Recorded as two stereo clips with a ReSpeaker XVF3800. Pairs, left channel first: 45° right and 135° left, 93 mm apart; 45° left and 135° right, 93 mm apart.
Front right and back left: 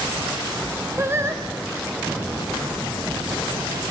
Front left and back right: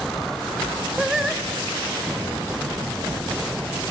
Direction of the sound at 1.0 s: 145° left.